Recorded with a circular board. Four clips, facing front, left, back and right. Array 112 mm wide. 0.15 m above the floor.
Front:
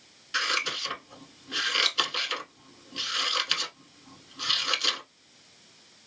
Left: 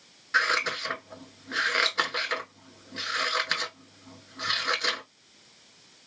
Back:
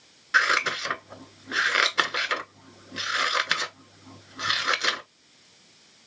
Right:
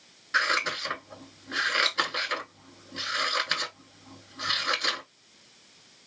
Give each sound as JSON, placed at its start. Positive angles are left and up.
{"t": 0.3, "sound": "scissors", "azimuth_deg": 170, "distance_m": 0.7}